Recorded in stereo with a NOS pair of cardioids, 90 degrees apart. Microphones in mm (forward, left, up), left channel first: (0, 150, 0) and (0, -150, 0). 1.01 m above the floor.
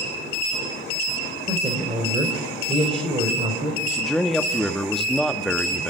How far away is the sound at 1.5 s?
About 3.5 m.